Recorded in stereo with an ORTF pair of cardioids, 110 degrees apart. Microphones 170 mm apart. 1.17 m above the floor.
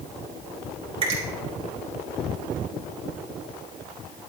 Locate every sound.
1.0 s a finger snap: 35° right, 4 m